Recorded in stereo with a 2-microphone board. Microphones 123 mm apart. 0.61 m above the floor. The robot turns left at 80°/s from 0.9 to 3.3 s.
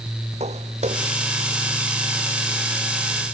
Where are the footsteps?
65° right (ahead or behind); by 1.1 s 45° right (ahead or behind).